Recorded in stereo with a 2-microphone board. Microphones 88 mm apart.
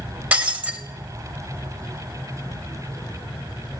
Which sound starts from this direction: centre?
Breaking glass, at 0.3 s.